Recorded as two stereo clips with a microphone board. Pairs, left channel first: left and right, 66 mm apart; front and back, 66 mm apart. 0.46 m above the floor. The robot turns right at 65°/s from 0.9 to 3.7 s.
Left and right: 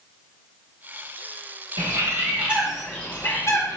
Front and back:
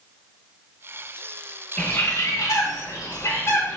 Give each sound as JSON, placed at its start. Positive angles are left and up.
{"t": 1.8, "sound": "a bird", "azimuth_deg": -65, "distance_m": 1.8}